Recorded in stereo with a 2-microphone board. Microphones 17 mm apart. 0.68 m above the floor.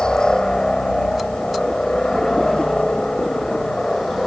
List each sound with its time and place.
0.0 s a helicopter: 65° left (ahead or behind)